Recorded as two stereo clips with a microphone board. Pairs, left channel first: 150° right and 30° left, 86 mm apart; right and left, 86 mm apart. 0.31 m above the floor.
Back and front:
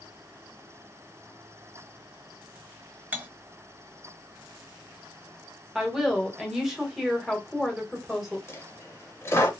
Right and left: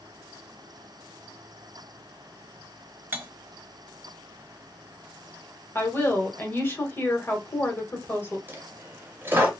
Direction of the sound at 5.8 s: 55° right.